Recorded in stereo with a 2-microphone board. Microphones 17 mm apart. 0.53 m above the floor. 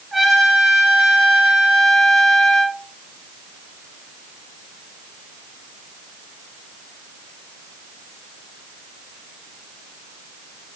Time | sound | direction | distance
0.1 | a trumpet | 20° right (ahead or behind) | 2 m